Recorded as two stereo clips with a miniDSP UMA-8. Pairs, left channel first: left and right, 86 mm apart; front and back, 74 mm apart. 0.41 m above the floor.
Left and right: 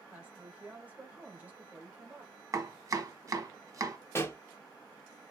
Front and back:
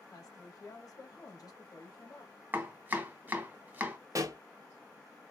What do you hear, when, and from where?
0.1 s a woman speaking: 20° right, 1.9 m
2.5 s chopping: 125° right, 1.2 m
4.2 s a pop: 145° left, 0.9 m